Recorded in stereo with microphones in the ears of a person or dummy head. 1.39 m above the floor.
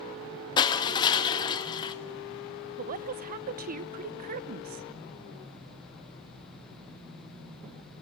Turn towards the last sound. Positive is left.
turn(degrees=-45)  # may be behind; listen again after turning